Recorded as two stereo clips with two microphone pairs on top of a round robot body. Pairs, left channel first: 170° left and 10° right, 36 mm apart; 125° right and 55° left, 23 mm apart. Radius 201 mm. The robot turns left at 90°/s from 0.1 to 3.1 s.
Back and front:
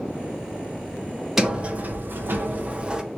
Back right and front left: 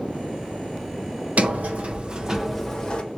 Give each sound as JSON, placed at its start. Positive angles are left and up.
{"t": 1.4, "sound": "a sliding door", "azimuth_deg": 70, "distance_m": 1.6}